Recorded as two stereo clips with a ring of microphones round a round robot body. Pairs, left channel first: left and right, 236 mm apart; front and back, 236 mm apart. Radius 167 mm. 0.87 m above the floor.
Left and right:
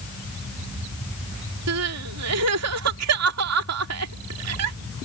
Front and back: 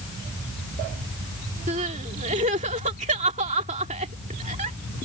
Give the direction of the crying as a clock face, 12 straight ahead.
4 o'clock.